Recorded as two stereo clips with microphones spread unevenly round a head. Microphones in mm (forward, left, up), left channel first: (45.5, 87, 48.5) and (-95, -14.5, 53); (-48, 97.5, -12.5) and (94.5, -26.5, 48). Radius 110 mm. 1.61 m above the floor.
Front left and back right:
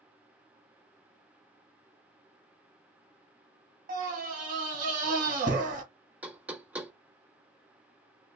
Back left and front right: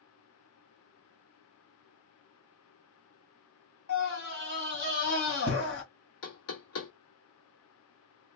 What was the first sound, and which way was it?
A scream, 175° left.